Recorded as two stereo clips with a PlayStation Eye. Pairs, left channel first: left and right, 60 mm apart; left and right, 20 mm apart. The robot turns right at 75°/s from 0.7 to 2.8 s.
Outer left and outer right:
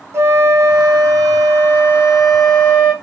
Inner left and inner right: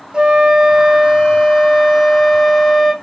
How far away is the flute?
About 3 m.